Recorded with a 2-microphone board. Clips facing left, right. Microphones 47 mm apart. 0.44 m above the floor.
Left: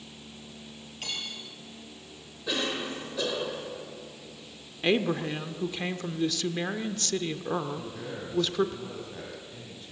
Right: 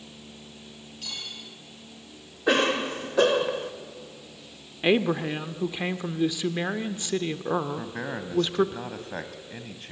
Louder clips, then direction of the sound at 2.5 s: Right 8 dB; 50° right (ahead or behind).